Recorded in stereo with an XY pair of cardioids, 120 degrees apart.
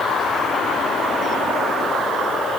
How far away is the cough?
I don't hear a cough.